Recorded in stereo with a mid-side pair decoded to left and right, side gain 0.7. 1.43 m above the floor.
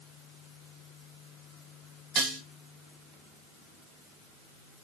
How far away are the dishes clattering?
About 1.8 m.